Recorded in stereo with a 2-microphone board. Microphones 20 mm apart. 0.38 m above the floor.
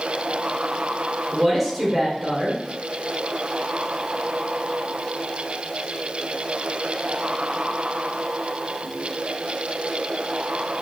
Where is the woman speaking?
15° right (ahead or behind), 0.9 m.